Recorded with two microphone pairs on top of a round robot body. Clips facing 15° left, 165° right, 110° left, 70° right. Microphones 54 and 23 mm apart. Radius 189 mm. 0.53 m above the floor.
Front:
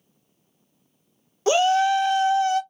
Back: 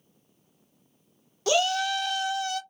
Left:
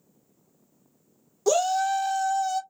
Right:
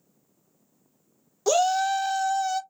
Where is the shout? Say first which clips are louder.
Front 6 dB, right 1 dB; 20° right, 0.7 m.